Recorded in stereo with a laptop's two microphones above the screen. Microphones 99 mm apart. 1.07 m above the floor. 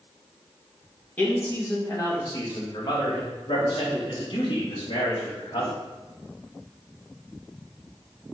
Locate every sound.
1.2 s a man speaking: 15° left (ahead or behind), 1.5 m; by 5.7 s 70° left (ahead or behind), 3 m